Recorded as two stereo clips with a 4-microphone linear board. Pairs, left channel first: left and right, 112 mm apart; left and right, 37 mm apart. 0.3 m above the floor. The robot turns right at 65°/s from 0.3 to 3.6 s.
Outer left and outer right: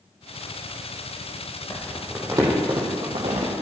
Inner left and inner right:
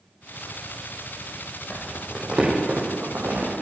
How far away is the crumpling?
About 4.5 m.